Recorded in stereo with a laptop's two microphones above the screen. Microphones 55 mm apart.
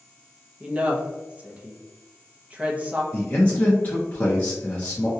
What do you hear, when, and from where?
0.6 s a woman speaking: 25° right (ahead or behind), 0.6 m
3.1 s a man speaking: 25° left (ahead or behind), 0.6 m